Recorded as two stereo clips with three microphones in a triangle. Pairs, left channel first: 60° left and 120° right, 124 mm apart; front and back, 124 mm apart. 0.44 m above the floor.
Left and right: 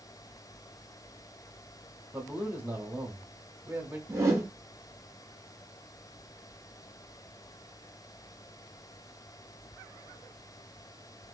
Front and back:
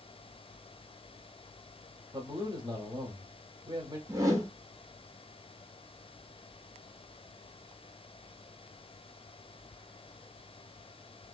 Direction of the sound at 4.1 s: 155° right.